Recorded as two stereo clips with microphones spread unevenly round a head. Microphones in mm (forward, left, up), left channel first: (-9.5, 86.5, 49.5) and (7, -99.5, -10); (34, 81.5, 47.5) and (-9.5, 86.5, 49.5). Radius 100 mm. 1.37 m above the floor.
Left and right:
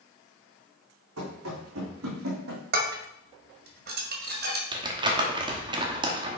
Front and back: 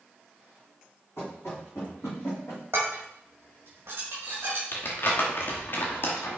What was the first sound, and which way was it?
Running footsteps, 70° right.